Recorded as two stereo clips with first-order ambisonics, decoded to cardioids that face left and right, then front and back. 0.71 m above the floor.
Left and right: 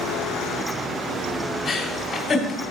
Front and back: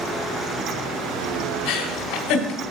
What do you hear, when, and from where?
1.6 s a giggle: 35° left, 1.8 m